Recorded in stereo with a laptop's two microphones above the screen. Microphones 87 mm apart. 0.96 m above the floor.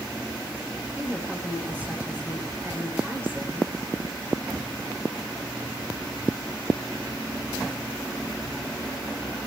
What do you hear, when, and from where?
1.0 s a woman speaking: 20° right (ahead or behind), 8 m